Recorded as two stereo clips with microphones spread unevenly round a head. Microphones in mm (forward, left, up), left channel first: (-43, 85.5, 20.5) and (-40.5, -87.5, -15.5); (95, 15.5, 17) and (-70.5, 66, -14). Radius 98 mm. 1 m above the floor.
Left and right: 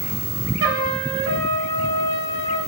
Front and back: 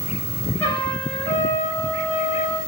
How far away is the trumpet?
About 4 m.